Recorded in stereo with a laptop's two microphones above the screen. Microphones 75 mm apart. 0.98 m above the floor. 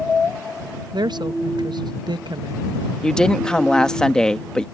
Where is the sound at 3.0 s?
10° left (ahead or behind).